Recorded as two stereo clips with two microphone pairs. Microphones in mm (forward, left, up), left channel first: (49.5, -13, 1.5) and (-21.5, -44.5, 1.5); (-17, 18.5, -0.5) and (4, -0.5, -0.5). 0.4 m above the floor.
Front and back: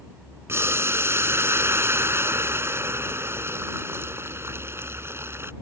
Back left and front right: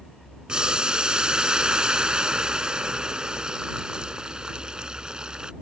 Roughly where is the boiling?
Right.